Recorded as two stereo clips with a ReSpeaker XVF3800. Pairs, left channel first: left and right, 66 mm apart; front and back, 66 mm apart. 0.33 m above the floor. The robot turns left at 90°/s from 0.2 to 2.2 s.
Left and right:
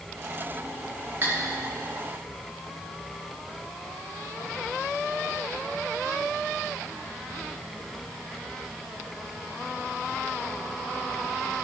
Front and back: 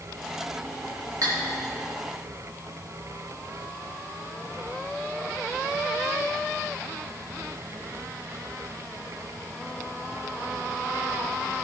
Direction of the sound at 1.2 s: 150° right.